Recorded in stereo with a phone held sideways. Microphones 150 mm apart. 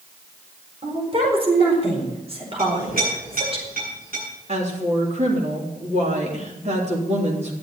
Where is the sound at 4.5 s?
50° right (ahead or behind), 3.5 m.